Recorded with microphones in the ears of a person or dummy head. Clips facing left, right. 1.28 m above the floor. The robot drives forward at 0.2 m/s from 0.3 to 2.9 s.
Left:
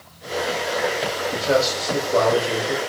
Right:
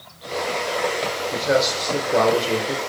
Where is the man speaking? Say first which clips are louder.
Even; 25° right (ahead or behind), 1.2 m; by 2.8 s 35° right (ahead or behind), 0.9 m.